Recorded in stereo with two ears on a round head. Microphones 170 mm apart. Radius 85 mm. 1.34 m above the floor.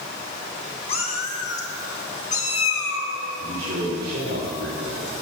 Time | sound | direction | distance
0.9 | a cat meowing | 35° left (ahead or behind) | 1.1 m
3.4 | a man speaking | 55° right (ahead or behind) | 3 m